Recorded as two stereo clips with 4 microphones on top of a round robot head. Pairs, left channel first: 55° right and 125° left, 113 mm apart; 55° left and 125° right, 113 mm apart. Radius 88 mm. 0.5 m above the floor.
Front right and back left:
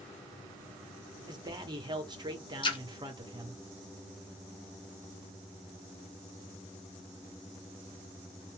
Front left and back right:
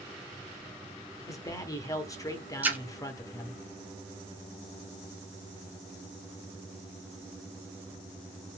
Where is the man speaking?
100° left, 1.2 m.